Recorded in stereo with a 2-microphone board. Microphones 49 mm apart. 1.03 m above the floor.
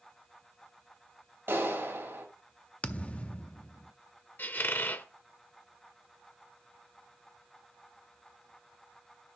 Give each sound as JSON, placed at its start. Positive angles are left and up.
{"t": 1.5, "sound": "a clap", "side_deg": -50, "distance_m": 3.5}
{"t": 2.8, "sound": "a thud", "side_deg": 25, "distance_m": 0.6}
{"t": 4.4, "sound": "a squeak", "side_deg": 40, "distance_m": 0.8}